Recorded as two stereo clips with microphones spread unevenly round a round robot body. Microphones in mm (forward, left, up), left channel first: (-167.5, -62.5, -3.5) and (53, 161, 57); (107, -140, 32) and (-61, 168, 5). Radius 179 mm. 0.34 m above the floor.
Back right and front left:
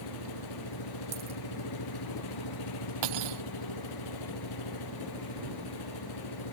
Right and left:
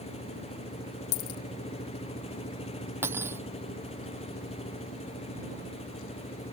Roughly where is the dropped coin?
Ahead right.